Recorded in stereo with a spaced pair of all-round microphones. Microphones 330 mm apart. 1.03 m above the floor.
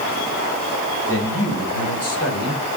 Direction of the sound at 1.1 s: 40° left (ahead or behind).